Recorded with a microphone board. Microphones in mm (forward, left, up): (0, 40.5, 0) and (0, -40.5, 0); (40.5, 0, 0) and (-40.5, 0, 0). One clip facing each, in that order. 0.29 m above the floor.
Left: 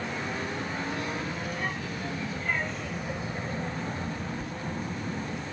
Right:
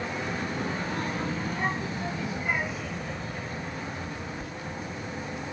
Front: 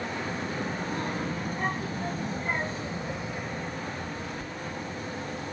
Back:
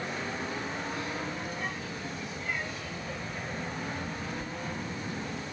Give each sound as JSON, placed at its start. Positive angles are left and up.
{"t": 0.2, "sound": "a child speaking", "azimuth_deg": -45}